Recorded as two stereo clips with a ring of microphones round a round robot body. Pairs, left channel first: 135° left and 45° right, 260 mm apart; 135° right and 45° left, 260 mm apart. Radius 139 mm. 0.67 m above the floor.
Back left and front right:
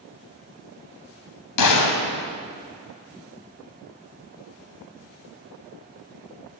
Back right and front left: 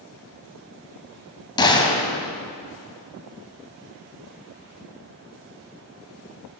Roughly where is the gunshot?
Behind left.